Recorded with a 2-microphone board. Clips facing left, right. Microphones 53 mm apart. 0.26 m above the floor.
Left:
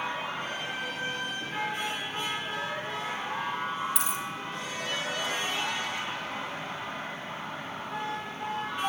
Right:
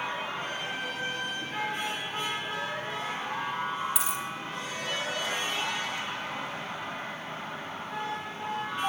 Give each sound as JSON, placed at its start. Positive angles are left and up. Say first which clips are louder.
{"t": 4.0, "sound": "a dropped coin", "louder": "even", "side_deg": 0, "distance_m": 7.0}